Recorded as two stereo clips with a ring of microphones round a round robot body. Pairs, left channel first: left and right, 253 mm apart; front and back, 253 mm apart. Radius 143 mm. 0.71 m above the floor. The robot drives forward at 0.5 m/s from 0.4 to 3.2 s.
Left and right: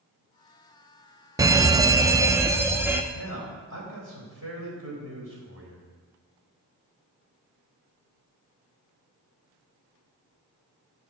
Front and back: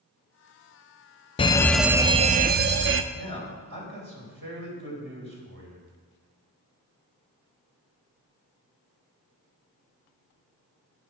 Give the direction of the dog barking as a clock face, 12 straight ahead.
No dog barking in this recording.